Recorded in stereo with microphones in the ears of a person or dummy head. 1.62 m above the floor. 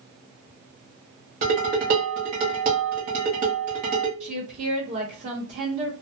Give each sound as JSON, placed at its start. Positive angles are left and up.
{"t": 1.4, "sound": "dishes clattering", "side_deg": -30, "distance_m": 0.8}
{"t": 4.2, "sound": "a woman speaking", "side_deg": -35, "distance_m": 0.9}